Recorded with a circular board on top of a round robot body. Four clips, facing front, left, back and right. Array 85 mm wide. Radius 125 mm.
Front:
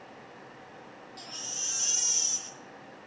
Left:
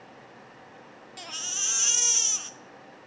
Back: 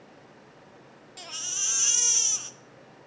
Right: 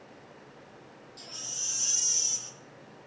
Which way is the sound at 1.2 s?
120° left.